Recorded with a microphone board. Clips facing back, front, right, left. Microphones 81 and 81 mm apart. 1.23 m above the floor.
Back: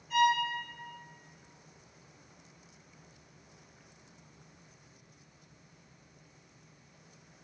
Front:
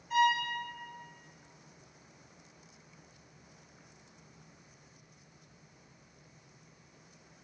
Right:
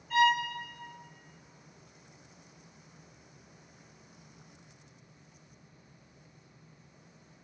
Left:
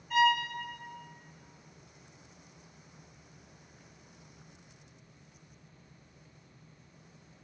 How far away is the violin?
About 1.4 m.